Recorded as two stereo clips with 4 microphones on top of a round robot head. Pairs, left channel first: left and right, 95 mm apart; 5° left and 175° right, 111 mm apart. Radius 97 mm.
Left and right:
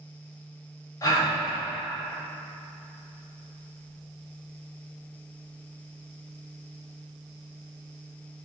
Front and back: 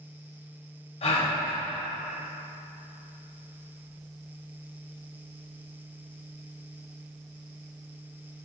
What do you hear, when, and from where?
1.0 s a gasp: 35° left, 1.8 m